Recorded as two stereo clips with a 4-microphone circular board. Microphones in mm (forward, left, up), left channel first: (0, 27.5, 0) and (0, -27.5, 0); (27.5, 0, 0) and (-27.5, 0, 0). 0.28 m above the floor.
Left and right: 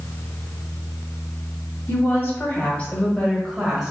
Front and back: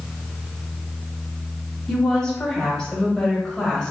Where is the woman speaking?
75° left, 1.7 m; by 3.9 s 45° right, 1.1 m.